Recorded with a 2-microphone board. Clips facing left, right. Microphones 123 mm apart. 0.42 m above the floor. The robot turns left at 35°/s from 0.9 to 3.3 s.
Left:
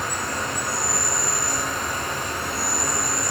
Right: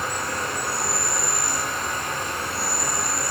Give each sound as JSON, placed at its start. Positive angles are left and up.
{"t": 0.0, "sound": "an insect", "azimuth_deg": 160, "distance_m": 1.3}